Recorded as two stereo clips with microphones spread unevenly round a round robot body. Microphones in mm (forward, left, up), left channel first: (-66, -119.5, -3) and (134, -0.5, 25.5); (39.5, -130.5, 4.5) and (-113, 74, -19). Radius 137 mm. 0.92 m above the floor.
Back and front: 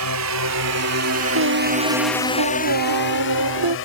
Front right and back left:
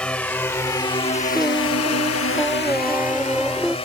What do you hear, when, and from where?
0.0 s a drone: 35° left; by 3.9 s 120° right
1.3 s singing: 35° left